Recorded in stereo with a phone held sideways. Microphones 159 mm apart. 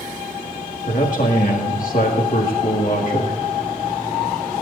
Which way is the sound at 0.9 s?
55° left (ahead or behind).